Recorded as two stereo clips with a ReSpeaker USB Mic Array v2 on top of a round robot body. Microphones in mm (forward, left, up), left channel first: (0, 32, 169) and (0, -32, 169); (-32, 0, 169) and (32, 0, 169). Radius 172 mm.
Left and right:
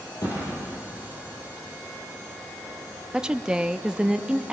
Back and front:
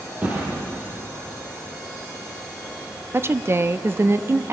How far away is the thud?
About 9.5 m.